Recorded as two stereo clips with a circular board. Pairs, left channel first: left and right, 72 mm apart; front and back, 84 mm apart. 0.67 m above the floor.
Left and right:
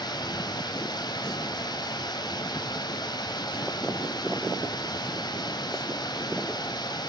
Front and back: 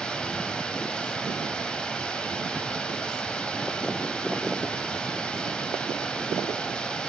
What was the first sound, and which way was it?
Running water, 80° left.